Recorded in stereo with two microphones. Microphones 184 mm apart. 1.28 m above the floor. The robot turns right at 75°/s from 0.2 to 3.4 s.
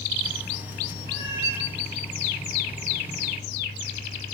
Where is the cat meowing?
105° right, 4.5 m; by 1.6 s 60° right, 4.5 m.